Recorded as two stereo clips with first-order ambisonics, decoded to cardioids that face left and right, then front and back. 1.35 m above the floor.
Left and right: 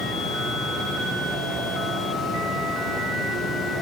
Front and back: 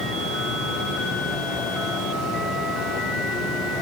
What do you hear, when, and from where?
0.0 s running water: 20° left, 3.5 m